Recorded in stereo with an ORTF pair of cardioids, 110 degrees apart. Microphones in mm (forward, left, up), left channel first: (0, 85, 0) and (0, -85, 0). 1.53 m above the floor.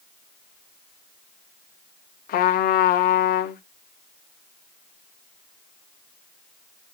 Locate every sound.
2.3 s a trumpet: 60° left, 0.7 m